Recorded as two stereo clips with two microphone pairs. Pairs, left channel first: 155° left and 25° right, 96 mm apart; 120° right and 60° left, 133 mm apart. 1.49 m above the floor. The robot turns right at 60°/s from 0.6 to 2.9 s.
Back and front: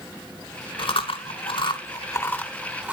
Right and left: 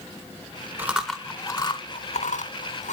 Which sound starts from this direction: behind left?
Chewing, at 0.8 s.